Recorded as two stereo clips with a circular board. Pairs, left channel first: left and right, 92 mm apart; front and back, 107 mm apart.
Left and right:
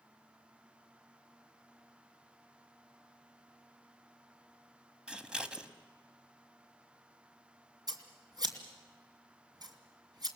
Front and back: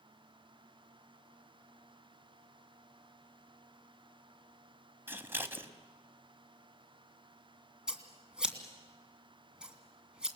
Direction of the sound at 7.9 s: 100° right.